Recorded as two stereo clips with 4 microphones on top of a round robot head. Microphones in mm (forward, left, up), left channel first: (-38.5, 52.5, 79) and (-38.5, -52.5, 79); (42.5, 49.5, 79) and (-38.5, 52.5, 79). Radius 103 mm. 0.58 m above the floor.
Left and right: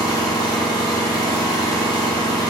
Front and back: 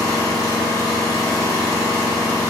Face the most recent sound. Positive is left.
turn(degrees=135)